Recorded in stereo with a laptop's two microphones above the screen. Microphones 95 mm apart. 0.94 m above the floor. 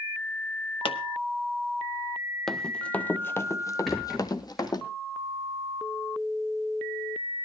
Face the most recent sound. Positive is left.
turn(degrees=0)  # may be behind; listen again after turning